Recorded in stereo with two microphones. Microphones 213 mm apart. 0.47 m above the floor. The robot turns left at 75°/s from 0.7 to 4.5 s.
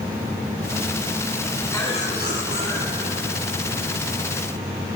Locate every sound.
1.7 s a cough: 170° left, 4 m; by 3.4 s 45° left, 4 m